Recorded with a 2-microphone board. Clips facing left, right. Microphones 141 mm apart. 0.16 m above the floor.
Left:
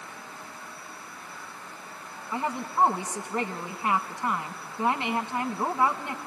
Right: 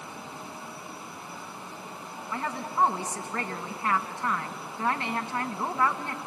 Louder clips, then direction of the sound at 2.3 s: Left 2 dB; 20° left (ahead or behind).